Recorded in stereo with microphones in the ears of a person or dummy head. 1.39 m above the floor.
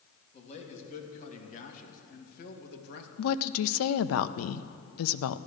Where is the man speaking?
45° left (ahead or behind), 3 m; by 3.1 s 65° left (ahead or behind), 1.7 m.